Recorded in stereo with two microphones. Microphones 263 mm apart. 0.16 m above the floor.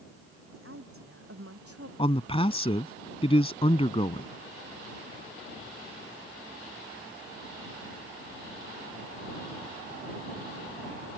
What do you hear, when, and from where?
0.5 s a woman speaking: 60° right (ahead or behind); by 1.9 s 70° right (ahead or behind)
2.0 s a man speaking: 25° left (ahead or behind)